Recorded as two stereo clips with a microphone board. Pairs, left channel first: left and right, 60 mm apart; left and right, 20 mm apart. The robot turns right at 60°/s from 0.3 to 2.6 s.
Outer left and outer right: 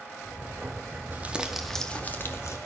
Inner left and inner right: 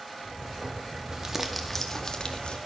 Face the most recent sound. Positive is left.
turn(degrees=60)